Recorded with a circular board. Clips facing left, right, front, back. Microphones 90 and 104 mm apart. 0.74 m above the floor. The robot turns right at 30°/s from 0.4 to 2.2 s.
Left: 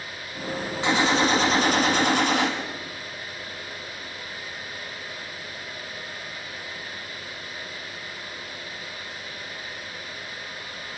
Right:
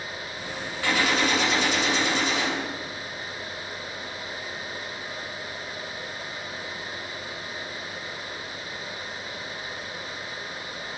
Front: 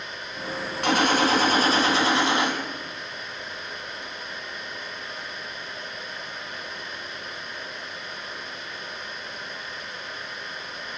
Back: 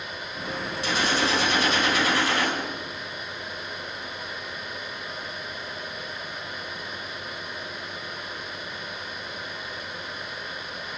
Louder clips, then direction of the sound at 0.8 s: Left 3 dB, front 5 dB; 25° left.